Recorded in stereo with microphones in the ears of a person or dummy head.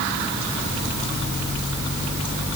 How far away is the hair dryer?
No hair dryer in this recording.